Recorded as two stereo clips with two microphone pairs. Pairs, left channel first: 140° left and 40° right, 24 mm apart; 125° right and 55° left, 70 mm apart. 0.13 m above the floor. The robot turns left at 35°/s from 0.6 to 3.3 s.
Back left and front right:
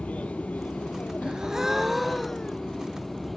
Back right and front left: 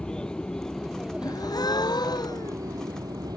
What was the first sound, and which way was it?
An aircraft, 155° left.